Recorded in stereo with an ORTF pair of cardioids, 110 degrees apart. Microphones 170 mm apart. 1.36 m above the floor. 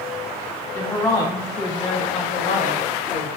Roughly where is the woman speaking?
Ahead.